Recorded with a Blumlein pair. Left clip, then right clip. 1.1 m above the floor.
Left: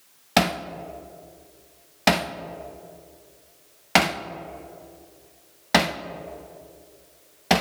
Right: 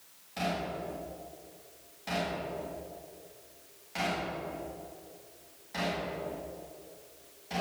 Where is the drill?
I don't hear a drill.